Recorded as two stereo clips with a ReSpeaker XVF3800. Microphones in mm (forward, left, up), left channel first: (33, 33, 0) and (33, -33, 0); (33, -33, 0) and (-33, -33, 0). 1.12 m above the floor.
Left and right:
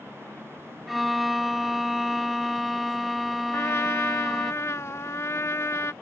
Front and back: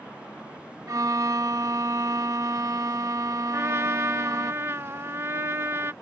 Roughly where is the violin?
Behind.